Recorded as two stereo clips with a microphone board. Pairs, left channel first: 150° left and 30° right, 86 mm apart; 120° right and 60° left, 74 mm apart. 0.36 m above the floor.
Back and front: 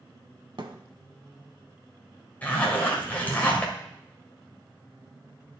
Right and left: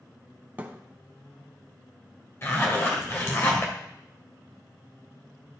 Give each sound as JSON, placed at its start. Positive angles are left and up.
{"t": 0.6, "sound": "a thud", "azimuth_deg": -5, "distance_m": 0.8}
{"t": 2.4, "sound": "a zipper", "azimuth_deg": -150, "distance_m": 1.8}